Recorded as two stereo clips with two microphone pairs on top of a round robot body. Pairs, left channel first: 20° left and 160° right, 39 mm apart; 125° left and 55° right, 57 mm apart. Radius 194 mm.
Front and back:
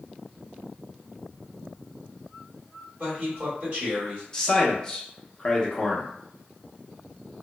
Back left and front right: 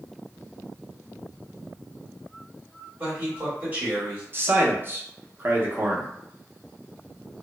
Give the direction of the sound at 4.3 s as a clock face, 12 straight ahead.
2 o'clock.